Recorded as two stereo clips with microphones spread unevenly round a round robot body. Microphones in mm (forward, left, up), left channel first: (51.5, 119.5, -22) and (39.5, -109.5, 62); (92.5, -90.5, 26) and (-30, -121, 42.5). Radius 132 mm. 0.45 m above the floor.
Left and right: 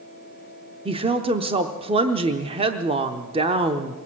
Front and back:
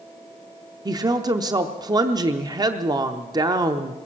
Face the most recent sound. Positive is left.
turn(degrees=-175)